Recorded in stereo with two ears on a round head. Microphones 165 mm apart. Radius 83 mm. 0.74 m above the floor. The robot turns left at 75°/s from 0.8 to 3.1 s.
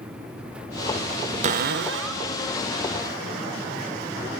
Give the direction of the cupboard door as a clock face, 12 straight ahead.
1 o'clock.